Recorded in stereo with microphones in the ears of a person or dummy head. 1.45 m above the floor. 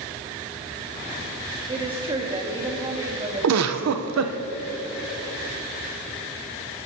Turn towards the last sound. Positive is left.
turn(degrees=-80)